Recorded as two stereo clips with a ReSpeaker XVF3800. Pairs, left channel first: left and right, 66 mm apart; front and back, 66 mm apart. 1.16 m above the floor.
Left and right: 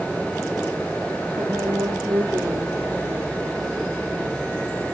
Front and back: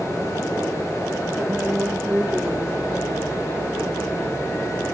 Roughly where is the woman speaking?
Behind right.